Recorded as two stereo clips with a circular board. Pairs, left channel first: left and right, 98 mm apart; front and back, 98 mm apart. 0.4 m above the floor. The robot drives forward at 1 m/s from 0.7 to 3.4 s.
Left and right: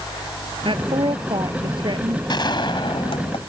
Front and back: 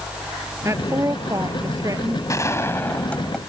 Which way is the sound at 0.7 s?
120° right.